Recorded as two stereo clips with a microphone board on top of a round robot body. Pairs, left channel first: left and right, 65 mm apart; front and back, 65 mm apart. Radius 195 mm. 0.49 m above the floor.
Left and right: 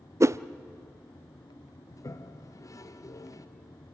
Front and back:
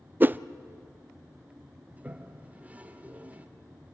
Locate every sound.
0.2 s a whoosh: 120° right, 0.6 m
1.9 s a toilet flushing: 115° left, 1.3 m